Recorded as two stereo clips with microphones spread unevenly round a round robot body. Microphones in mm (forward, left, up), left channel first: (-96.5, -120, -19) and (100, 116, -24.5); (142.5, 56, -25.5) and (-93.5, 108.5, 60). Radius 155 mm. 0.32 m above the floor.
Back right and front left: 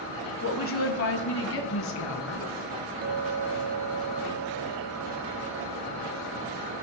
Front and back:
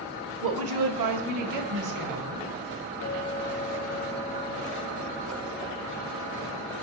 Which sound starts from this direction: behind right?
A woman speaking, at 0.4 s.